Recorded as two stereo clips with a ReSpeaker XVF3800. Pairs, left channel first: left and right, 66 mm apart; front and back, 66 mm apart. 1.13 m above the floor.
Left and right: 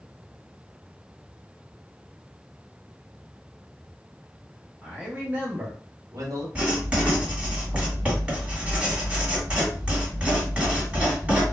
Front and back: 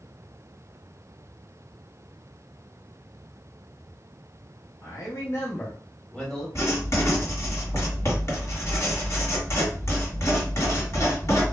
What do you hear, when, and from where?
4.8 s a man speaking: 5° right, 0.9 m; by 6.5 s 85° right, 1.1 m
6.5 s writing: 20° right, 1.4 m